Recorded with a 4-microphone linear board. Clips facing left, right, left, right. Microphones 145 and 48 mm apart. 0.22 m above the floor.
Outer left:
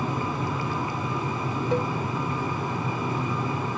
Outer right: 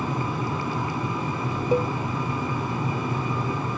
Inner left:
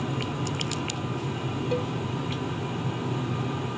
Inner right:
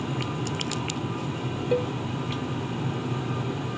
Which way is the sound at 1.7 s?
10° right (ahead or behind).